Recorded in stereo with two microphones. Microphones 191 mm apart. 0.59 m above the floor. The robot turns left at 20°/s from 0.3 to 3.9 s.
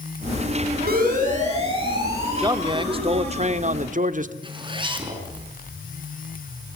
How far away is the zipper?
About 4.5 m.